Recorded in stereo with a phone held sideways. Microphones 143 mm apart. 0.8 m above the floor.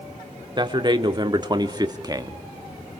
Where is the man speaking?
30° right (ahead or behind), 1.9 m; by 2.4 s 25° right (ahead or behind), 1.0 m.